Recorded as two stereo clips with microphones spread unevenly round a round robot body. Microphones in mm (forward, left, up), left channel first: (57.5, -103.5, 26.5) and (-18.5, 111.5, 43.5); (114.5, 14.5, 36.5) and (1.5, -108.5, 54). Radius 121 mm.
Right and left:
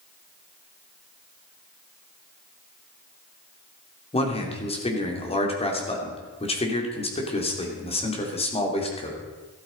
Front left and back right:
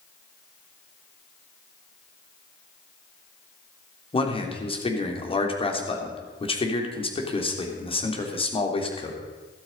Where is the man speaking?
5° right, 3 m.